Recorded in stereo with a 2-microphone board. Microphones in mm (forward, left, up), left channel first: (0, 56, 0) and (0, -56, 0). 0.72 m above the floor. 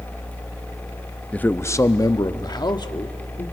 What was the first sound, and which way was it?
A man speaking, 10° left (ahead or behind).